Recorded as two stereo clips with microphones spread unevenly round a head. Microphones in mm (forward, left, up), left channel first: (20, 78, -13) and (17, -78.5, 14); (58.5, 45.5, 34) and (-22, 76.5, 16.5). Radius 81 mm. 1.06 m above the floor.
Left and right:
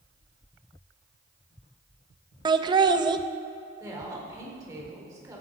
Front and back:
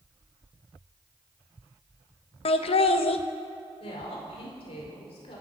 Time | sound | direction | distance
2.5 | laughter | 25° right | 1.1 m
3.8 | a woman speaking | 20° right | 4.5 m